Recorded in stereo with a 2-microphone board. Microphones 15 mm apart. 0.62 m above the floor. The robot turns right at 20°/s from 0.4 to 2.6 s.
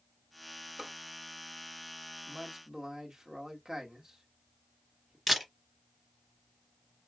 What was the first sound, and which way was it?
A drawer, 60° right (ahead or behind).